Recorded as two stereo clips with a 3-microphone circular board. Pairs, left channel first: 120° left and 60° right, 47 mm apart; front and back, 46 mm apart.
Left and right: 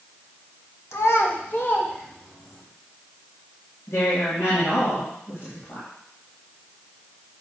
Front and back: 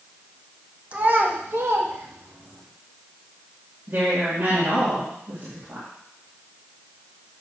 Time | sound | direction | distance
0.9 | a child speaking | 125° left | 1.4 m
3.9 | a woman speaking | 145° left | 2.5 m